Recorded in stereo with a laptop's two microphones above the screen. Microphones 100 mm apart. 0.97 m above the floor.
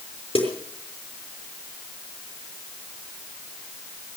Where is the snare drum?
70° left (ahead or behind), 5.5 m.